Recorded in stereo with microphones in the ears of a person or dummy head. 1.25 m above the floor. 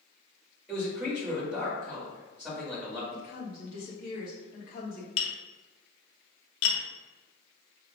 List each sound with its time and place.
0.7 s a man speaking: centre (ahead or behind), 1.7 m
3.1 s a woman speaking: 50° left (ahead or behind), 1.3 m
5.2 s tapping: 75° left (ahead or behind), 1.1 m